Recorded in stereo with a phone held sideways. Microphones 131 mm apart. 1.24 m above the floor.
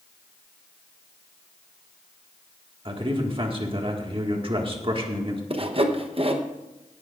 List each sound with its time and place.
2.9 s a man speaking: 45° right (ahead or behind), 1.8 m
5.5 s sawing: 45° right (ahead or behind), 1.0 m